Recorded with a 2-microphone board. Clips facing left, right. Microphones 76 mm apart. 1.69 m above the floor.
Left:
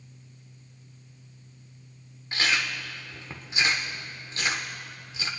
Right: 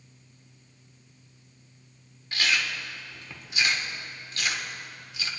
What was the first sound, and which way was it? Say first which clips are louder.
Chewing: left 1 dB; 30° left (ahead or behind).